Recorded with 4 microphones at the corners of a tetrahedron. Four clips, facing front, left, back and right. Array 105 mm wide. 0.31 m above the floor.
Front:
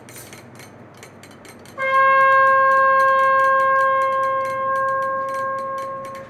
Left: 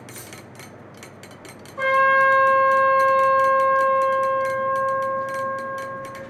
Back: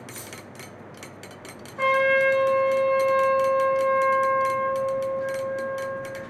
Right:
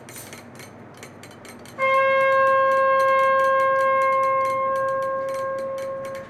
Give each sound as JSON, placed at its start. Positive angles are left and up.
{"t": 0.1, "sound": "keys jangling", "azimuth_deg": 135, "distance_m": 1.5}
{"t": 1.8, "sound": "a trumpet", "azimuth_deg": 35, "distance_m": 1.0}